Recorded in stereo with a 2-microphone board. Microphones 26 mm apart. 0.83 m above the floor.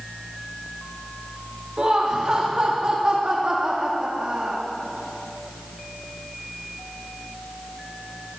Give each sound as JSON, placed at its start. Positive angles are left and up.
{"t": 1.8, "sound": "laughter", "side_deg": -45, "distance_m": 1.3}